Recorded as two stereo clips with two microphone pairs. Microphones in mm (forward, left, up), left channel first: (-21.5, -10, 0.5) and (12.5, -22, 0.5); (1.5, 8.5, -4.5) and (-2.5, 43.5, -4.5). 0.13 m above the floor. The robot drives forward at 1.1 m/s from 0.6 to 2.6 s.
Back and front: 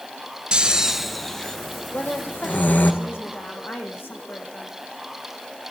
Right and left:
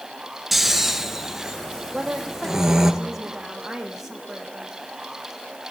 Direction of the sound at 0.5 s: 20° left.